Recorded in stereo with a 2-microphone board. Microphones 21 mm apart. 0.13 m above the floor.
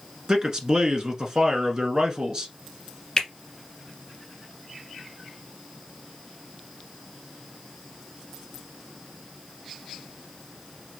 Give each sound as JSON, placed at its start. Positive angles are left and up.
{"t": 0.3, "sound": "a man speaking", "side_deg": -35, "distance_m": 1.3}
{"t": 3.2, "sound": "a finger snap", "side_deg": 30, "distance_m": 1.7}